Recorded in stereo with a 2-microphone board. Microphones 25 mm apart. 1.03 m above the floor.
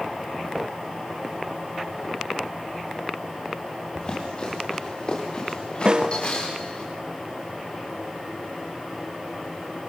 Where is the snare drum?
35° right (ahead or behind), 0.6 m.